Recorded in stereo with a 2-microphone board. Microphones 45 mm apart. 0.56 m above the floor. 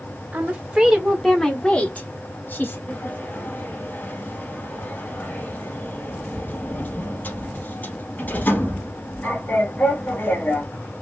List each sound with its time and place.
0.3 s a woman speaking: 35° right (ahead or behind), 1.8 m; by 2.8 s 50° left (ahead or behind), 2.5 m
2.9 s a sliding door: 40° left (ahead or behind), 2.5 m